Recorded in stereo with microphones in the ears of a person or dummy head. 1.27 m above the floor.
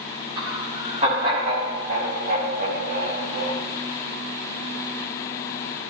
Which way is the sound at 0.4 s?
25° right (ahead or behind).